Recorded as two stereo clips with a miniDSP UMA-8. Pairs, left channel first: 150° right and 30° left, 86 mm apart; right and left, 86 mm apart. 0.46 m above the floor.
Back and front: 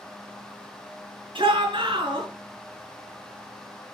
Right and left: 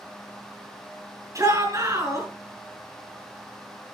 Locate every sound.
1.4 s a shout: 40° left, 5 m